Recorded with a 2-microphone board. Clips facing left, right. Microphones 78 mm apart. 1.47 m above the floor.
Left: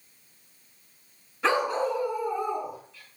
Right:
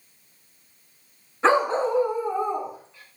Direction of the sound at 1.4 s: 30° right (ahead or behind).